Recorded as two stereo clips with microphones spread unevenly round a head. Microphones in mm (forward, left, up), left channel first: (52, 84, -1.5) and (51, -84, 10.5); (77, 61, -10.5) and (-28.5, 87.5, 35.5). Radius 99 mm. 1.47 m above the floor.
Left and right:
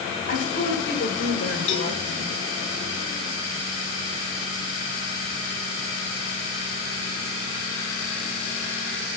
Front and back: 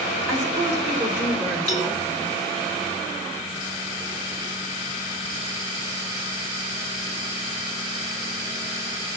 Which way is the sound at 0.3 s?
145° left.